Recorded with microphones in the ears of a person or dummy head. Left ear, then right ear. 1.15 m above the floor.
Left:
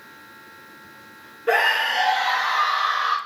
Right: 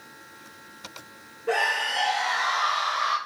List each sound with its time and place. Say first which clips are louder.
1.5 s a scream: left 5 dB; 55° left (ahead or behind), 0.7 m; by 3.2 s 15° right (ahead or behind), 0.6 m